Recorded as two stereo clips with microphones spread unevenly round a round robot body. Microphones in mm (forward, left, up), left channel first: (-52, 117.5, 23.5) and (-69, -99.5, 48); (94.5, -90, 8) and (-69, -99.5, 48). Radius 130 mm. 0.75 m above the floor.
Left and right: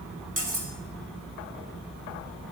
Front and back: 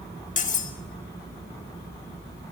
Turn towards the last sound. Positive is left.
turn(degrees=-35)